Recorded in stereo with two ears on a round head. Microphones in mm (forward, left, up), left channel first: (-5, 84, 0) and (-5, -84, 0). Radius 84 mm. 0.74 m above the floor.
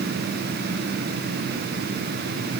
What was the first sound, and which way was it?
Only background noise.